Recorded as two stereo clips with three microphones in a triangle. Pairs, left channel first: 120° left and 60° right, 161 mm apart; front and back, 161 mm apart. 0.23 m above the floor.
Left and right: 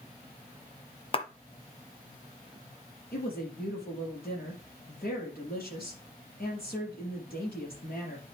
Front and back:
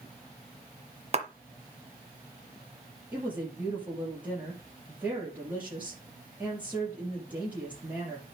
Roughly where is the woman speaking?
Left.